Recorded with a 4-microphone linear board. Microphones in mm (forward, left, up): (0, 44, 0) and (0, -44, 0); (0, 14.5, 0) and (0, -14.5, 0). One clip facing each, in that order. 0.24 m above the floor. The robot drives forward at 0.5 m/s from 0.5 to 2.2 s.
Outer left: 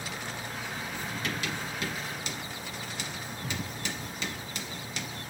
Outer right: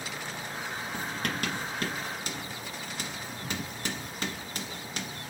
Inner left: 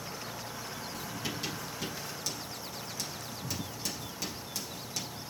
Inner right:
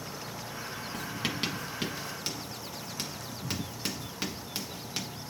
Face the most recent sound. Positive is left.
turn(degrees=-45)  # may be behind; listen again after turning